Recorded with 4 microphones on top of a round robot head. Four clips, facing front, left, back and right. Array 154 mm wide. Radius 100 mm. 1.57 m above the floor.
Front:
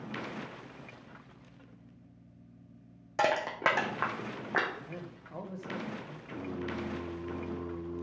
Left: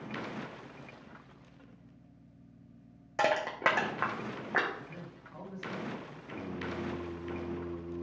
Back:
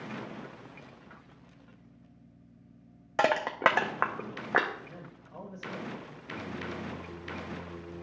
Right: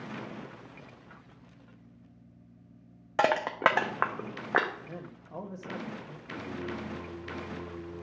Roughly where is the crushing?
Behind right.